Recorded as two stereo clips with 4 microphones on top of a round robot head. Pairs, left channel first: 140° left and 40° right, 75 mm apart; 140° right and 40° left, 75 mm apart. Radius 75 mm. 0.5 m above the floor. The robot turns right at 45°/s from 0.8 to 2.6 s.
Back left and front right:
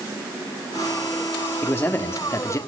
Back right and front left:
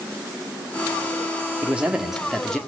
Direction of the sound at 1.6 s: 100° left.